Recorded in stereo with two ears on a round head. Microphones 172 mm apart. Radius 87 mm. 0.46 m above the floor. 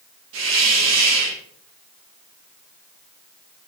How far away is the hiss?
About 7.5 m.